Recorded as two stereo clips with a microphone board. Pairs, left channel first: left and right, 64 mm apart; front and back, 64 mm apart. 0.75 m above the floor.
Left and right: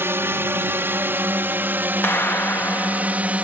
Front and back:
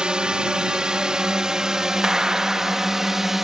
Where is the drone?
110° right; by 3.5 s 105° right.